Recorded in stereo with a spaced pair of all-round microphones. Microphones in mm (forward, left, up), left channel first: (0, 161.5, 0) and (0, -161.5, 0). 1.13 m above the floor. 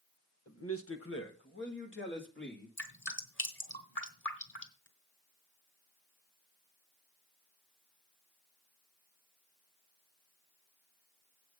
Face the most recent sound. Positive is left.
turn(degrees=35)  # may be behind; listen again after turning